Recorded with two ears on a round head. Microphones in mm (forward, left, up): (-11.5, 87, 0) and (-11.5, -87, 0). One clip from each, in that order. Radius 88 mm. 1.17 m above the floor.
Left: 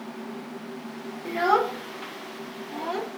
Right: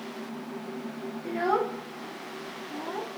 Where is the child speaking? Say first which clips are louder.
Left 5 dB; 20° left (ahead or behind), 0.7 m; by 3.1 s 70° left (ahead or behind), 1.3 m.